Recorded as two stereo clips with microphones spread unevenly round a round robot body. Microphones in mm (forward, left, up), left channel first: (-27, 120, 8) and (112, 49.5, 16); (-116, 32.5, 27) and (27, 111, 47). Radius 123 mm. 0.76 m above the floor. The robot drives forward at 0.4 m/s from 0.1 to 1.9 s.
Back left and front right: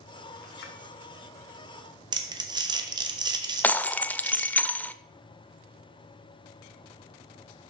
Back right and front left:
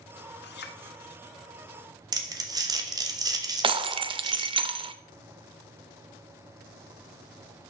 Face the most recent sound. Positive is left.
turn(degrees=70)